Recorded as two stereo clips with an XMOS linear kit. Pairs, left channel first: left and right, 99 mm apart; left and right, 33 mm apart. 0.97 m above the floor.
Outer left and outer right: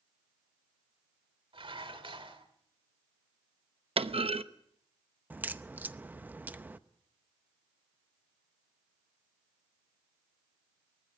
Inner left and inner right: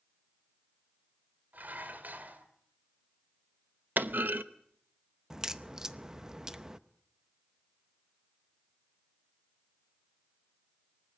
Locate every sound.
1.5 s dishes clattering: 60° right (ahead or behind), 2.5 m
4.0 s a clunk: 70° right (ahead or behind), 0.9 m
5.3 s a crack: 15° right (ahead or behind), 0.7 m